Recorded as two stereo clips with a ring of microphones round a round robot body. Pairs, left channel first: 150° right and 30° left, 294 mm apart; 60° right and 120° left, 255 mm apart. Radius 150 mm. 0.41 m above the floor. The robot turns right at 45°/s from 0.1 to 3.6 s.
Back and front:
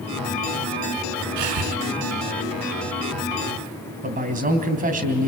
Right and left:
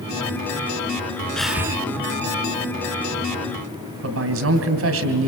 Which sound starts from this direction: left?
A man speaking, at 4.0 s.